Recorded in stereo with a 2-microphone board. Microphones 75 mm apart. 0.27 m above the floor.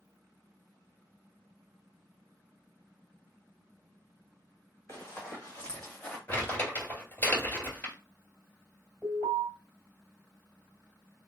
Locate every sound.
4.9 s running footsteps: 40° left (ahead or behind), 1.8 m; by 6.2 s 25° left (ahead or behind), 1.2 m
6.3 s crumpling: 25° left (ahead or behind), 2.0 m
9.0 s an alarm: 30° left (ahead or behind), 2 m